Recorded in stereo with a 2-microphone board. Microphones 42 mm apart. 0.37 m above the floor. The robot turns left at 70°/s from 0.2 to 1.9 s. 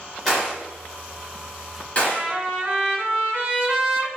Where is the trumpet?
30° right (ahead or behind), 1.2 m.